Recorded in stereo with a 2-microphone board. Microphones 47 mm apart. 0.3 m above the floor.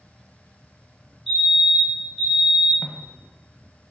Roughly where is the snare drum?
Left.